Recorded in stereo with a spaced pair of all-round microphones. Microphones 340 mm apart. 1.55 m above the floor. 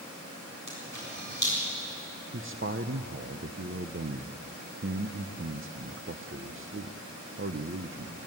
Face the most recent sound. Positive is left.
turn(degrees=-40)  # may be behind; listen again after turning